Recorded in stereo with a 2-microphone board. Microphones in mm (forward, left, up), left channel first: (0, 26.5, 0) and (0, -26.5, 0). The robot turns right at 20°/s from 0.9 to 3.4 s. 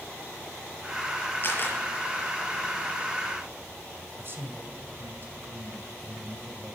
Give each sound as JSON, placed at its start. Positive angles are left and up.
{"t": 1.4, "sound": "a camera shutter", "side_deg": 45, "distance_m": 6.5}
{"t": 4.2, "sound": "a man speaking", "side_deg": -50, "distance_m": 2.5}